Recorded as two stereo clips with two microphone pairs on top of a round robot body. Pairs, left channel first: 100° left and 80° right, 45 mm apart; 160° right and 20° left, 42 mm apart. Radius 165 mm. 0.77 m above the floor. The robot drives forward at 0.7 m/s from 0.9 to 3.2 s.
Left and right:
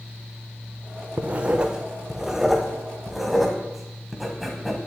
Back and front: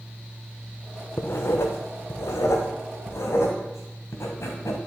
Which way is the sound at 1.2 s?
125° right.